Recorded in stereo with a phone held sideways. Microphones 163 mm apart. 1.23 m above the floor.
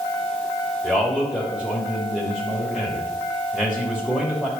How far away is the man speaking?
About 2.5 m.